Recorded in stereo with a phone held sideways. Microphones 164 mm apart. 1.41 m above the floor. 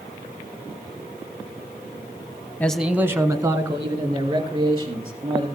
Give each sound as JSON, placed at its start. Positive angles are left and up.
{"t": 2.6, "sound": "a man speaking", "side_deg": 10, "distance_m": 0.7}